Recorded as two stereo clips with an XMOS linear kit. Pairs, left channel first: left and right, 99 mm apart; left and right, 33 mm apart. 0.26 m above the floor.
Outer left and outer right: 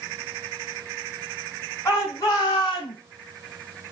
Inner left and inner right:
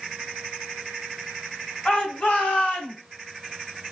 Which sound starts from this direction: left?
A shout, at 1.9 s.